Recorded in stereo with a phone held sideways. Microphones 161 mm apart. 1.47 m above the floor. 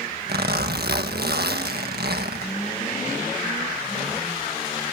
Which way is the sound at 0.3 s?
80° right.